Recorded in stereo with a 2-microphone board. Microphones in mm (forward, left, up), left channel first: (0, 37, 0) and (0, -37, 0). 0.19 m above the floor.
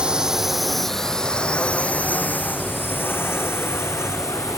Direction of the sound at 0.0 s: 10° right (ahead or behind).